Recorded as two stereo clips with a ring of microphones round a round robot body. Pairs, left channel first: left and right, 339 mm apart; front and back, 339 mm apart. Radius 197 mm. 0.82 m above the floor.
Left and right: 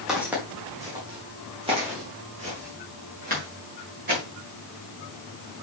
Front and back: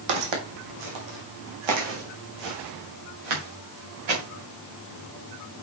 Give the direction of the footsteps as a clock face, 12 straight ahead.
6 o'clock.